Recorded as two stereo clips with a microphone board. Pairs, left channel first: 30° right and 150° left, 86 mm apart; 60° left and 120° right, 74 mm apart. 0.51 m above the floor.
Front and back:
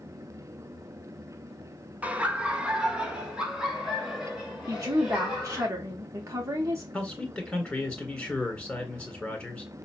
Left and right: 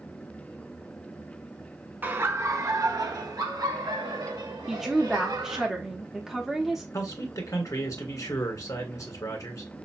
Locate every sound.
2.0 s laughter: 155° right, 0.7 m; by 5.7 s 125° right, 3 m
4.7 s a woman speaking: 155° left, 0.8 m
6.9 s a man speaking: 45° left, 1.9 m